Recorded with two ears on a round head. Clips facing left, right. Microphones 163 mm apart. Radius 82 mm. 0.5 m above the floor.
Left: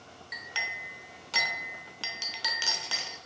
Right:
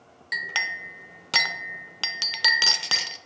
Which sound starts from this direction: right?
A clink, at 0.3 s.